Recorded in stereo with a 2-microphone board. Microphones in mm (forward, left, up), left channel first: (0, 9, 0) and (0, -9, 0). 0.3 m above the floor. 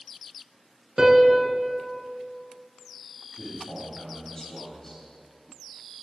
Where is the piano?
35° right (ahead or behind), 0.9 m.